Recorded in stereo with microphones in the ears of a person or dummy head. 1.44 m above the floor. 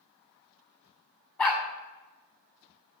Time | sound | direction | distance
1.4 | a dog barking | 10° left (ahead or behind) | 1.2 m